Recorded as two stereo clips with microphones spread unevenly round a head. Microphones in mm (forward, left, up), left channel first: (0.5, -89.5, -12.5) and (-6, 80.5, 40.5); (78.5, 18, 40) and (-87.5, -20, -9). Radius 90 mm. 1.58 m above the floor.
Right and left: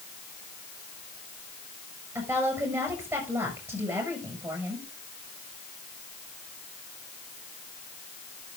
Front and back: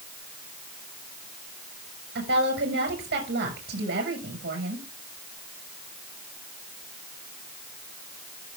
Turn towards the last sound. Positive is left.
turn(degrees=165)